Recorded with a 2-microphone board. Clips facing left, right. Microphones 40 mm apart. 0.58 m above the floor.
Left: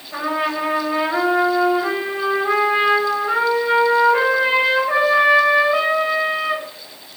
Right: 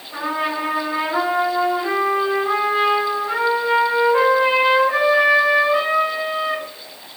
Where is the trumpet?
15° left (ahead or behind), 1.2 m.